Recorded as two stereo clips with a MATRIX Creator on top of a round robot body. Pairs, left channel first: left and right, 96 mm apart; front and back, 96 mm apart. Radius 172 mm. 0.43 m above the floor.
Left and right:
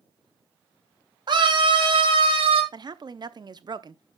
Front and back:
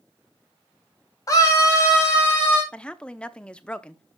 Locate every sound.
1.3 s a scream: 50° right, 3 m; by 2.6 s 65° right, 3.5 m
2.7 s a woman speaking: 75° right, 1.0 m